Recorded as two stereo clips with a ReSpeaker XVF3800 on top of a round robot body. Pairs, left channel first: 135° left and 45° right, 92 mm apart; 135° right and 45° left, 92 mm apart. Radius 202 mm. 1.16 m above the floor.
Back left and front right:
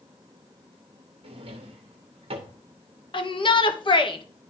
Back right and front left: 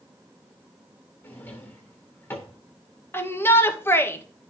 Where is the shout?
160° left, 1.8 m.